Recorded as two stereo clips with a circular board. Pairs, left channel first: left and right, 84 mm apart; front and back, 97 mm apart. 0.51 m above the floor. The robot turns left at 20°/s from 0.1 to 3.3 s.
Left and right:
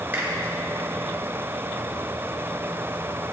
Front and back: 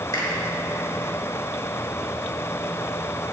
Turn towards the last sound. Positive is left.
turn(degrees=-95)